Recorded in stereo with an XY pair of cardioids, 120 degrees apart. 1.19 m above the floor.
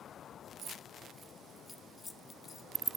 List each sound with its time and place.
0.6 s keys jangling: 55° right, 1.3 m; by 3.0 s 45° left, 1.9 m